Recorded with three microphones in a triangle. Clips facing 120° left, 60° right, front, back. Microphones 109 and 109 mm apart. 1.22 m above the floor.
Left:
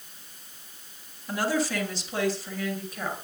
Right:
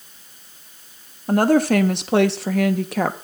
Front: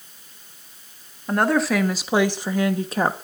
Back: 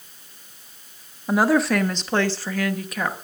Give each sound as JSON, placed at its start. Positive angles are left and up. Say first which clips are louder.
{"t": 1.3, "sound": "a woman speaking", "louder": "right 11 dB, back 1 dB", "azimuth_deg": -95, "distance_m": 1.6}